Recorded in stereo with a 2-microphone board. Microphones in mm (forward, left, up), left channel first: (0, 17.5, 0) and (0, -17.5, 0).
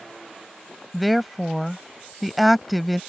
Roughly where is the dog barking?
I don't hear a dog barking.